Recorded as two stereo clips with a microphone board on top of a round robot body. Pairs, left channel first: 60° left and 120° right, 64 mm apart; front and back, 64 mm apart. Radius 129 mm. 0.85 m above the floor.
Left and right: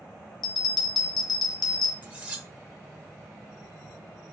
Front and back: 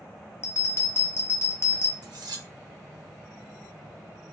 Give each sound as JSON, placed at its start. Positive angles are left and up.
{"t": 0.4, "sound": "a bell", "azimuth_deg": 50, "distance_m": 0.6}
{"t": 2.0, "sound": "cutlery clinking", "azimuth_deg": 170, "distance_m": 0.8}